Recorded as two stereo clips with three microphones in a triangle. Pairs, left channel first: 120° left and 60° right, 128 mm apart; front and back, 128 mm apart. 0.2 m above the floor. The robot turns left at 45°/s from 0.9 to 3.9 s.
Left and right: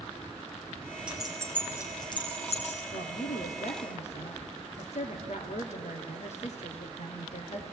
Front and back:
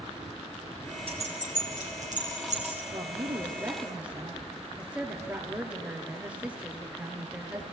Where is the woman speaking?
145° left, 4 m; by 7.6 s 100° left, 4 m.